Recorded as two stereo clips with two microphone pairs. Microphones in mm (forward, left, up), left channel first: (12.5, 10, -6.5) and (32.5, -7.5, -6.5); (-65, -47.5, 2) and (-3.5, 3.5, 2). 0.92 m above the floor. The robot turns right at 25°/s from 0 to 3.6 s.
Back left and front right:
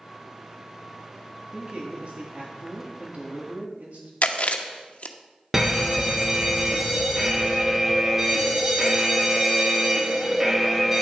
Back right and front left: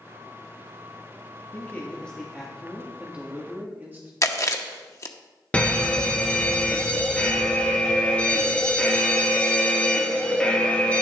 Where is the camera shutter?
No camera shutter in this recording.